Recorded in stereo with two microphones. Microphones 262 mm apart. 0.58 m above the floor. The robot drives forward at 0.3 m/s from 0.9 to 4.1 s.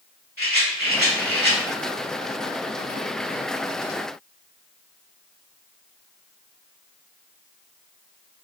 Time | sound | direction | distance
0.4 | a rattle | 40° right (ahead or behind) | 1.7 m